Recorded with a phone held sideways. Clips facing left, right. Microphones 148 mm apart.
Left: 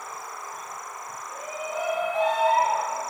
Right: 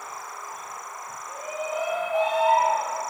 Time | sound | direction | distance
1.3 | a shout | 30° right (ahead or behind) | 3 m